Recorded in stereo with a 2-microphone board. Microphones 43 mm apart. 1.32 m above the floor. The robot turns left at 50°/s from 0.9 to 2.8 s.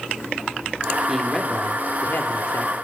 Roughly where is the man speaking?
Behind.